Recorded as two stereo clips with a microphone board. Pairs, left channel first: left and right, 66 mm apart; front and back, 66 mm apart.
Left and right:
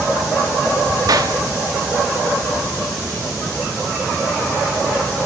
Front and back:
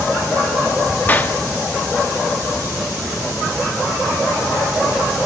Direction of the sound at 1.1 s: 65° right.